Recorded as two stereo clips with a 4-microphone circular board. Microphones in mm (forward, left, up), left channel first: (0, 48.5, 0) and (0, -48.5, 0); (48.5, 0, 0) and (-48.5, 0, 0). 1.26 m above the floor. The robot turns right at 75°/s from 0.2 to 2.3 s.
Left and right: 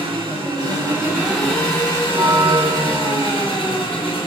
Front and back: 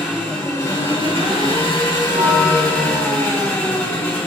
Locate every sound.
0.0 s an engine running: 95° right, 1.9 m; by 4.3 s 65° left, 1.9 m
2.1 s a bell: 165° right, 0.6 m; by 3.5 s 150° right, 0.6 m